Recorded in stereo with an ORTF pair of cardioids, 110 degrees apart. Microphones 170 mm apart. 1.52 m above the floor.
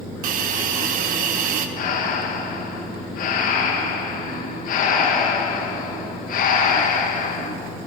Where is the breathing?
60° left, 2 m.